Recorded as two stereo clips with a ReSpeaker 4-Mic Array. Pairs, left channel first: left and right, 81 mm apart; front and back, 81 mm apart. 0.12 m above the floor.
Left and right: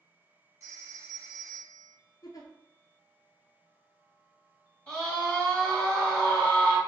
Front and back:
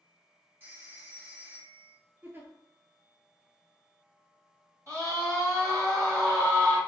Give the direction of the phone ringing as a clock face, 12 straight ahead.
4 o'clock.